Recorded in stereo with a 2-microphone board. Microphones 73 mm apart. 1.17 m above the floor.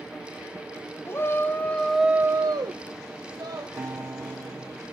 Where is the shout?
35° left (ahead or behind), 1.6 m; by 3.7 s 60° right (ahead or behind), 2.0 m.